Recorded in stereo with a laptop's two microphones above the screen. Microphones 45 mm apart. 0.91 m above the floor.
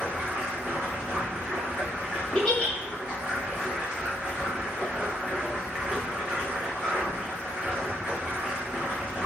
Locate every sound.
0.0 s running water: 25° right (ahead or behind), 1.6 m
2.4 s a giggle: 20° left (ahead or behind), 0.7 m